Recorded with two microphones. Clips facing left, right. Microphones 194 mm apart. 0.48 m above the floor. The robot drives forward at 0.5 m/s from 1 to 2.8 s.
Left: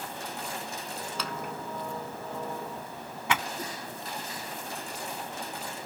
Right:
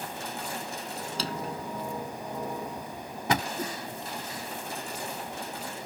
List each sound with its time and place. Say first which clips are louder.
1.2 s a drawer: right 4 dB; 35° right (ahead or behind); by 3.4 s 40° right (ahead or behind)
3.6 s a whoosh: right 4 dB; 20° right (ahead or behind)